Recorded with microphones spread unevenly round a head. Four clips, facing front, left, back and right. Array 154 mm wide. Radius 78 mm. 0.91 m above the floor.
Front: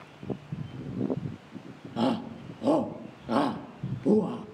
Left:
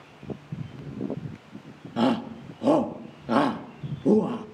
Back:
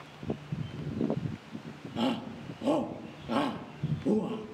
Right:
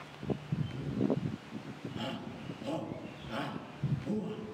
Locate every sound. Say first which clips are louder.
2.0 s a shout: left 18 dB, front 3 dB; 75° left, 1.1 m